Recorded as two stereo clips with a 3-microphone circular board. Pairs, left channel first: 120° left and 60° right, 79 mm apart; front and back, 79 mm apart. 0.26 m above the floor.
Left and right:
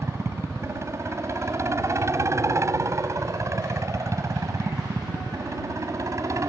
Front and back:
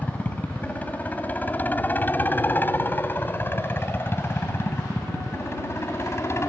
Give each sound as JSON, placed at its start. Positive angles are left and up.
{"t": 0.0, "sound": "a helicopter", "azimuth_deg": -60}